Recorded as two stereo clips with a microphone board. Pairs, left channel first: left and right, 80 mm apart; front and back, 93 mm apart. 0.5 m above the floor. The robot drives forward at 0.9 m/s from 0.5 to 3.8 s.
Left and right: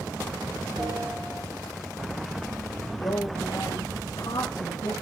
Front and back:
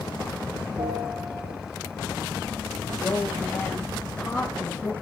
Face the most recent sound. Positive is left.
turn(degrees=80)